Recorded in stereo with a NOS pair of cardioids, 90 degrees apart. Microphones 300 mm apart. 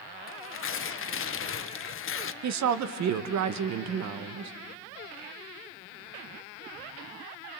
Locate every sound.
0.3 s tearing paper: 40° left, 0.9 m
2.4 s a woman speaking: 65° right, 1.1 m